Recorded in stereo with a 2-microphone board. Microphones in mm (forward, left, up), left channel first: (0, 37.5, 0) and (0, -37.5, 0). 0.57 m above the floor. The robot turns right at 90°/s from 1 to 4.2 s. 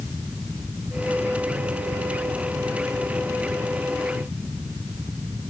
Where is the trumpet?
No trumpet in this recording.